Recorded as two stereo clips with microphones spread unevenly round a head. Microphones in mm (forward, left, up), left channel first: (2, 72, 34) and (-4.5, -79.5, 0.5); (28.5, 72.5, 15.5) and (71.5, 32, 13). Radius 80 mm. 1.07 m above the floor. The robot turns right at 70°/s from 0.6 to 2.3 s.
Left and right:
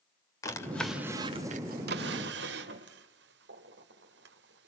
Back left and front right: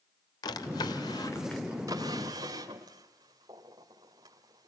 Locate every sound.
0.4 s a drawer: 155° left, 2.5 m; by 4.7 s 85° right, 2.5 m